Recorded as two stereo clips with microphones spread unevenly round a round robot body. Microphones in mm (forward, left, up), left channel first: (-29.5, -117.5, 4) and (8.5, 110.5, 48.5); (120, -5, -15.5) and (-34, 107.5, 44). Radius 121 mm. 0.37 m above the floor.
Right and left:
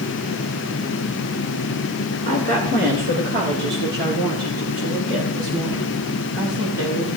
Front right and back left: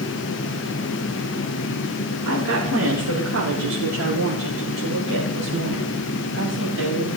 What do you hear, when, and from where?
2.2 s a woman speaking: 135° left, 4.5 m; by 7.1 s 120° left, 7.5 m